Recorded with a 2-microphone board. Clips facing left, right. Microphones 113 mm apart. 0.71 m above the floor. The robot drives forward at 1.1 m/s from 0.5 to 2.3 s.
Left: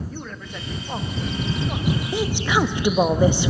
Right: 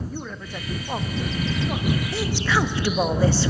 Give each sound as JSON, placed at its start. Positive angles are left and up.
{"t": 0.1, "sound": "a man speaking", "side_deg": -5, "distance_m": 0.9}
{"t": 2.1, "sound": "a woman speaking", "side_deg": 15, "distance_m": 0.7}